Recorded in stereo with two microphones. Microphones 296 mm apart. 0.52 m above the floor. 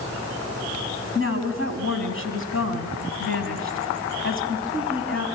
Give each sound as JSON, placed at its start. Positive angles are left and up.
{"t": 1.1, "sound": "a woman speaking", "side_deg": 45, "distance_m": 3.5}